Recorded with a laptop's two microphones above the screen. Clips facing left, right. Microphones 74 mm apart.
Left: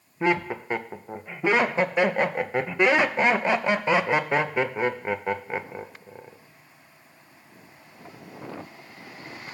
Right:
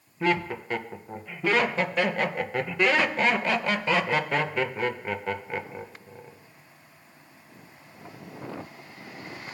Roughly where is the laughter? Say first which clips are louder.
Left 2 dB; left.